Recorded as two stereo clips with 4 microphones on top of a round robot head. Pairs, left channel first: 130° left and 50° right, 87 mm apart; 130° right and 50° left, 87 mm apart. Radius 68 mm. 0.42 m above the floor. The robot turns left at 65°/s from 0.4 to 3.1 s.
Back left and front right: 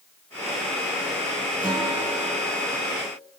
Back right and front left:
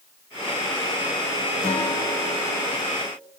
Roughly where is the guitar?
Behind right.